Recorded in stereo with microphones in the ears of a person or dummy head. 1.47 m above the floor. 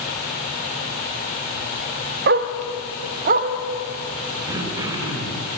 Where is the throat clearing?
25° right (ahead or behind), 2 m.